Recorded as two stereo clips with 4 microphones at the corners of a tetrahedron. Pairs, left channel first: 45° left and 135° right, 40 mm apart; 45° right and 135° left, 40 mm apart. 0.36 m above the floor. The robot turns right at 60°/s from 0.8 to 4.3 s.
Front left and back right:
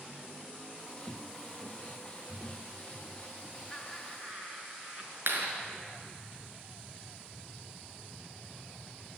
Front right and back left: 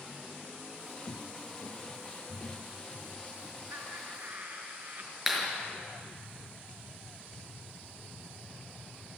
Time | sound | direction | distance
1.1 | footsteps | 25° right | 1.6 m
3.7 | laughter | 125° left | 5.5 m
5.3 | a clap | 145° right | 5.5 m